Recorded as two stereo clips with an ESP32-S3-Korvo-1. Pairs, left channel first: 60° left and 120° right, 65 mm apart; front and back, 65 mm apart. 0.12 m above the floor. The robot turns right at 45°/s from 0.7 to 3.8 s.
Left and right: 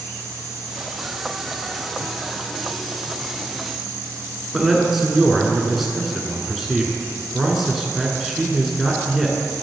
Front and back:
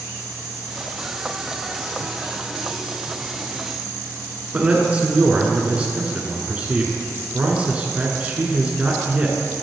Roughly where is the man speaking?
Behind left.